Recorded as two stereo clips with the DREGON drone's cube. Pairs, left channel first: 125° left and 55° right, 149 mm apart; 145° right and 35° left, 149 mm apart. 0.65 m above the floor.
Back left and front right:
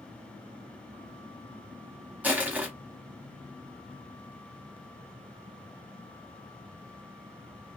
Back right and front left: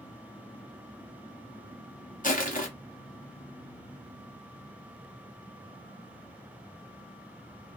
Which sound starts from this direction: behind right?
Crushing, at 2.2 s.